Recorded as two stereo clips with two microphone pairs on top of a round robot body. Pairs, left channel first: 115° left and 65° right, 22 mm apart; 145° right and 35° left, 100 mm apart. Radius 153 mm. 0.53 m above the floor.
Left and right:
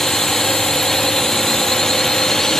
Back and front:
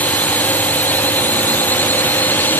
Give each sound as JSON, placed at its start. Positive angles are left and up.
{"t": 0.0, "sound": "a drone", "azimuth_deg": 175}